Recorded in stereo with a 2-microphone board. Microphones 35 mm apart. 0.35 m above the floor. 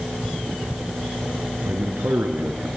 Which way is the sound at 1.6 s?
75° right (ahead or behind).